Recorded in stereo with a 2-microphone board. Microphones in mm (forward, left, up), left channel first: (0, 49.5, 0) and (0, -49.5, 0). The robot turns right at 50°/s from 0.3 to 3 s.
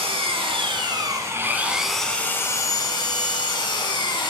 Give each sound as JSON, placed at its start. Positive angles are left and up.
{"t": 0.0, "sound": "an engine running", "azimuth_deg": -80, "distance_m": 1.3}